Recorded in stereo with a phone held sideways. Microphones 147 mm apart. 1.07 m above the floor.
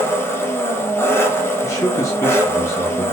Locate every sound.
0.0 s an engine running: 15° left (ahead or behind), 0.8 m
1.6 s a man speaking: 20° left (ahead or behind), 0.7 m